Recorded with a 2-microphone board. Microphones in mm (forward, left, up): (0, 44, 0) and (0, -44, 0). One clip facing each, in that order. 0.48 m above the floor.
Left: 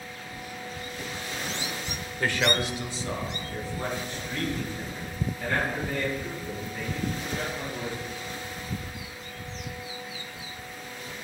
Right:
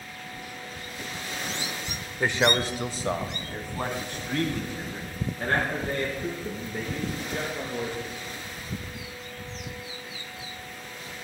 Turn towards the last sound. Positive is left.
turn(degrees=-70)  # may be behind; listen again after turning